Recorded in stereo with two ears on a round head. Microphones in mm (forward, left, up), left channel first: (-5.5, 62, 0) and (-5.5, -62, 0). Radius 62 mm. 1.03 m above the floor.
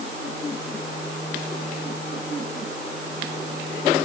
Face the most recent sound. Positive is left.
No sound to turn to.